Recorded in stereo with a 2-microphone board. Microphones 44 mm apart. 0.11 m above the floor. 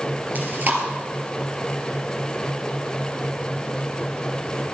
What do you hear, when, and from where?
0.3 s chewing: 40° right (ahead or behind), 2.5 m